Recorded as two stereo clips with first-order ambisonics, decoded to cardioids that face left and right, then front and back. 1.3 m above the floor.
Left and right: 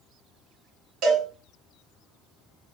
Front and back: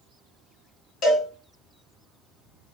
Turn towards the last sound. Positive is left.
turn(degrees=-50)